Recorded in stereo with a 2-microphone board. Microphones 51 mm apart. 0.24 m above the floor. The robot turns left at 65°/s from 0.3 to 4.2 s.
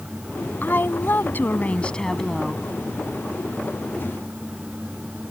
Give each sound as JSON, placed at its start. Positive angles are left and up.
{"t": 0.6, "sound": "a woman speaking", "azimuth_deg": 115}